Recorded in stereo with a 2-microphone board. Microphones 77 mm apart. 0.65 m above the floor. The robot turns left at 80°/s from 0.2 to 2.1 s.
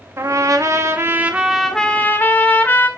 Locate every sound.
0.2 s a trumpet: 65° right, 0.9 m; by 2.9 s 140° left, 0.9 m